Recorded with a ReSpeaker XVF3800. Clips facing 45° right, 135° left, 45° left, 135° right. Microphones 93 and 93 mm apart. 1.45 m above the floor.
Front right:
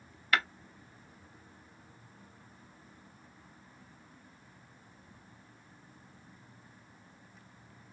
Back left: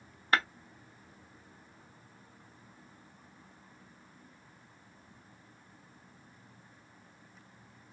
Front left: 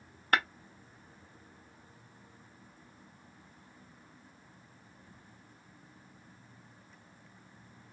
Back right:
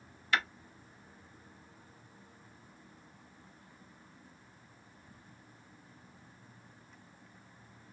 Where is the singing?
I don't hear singing.